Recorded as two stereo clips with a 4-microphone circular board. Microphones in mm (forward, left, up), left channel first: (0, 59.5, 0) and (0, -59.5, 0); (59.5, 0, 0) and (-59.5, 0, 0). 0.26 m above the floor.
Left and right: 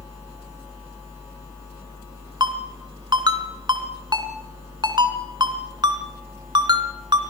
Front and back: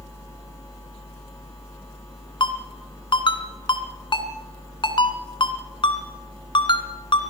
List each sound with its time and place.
2.4 s a ringtone: 40° right, 2 m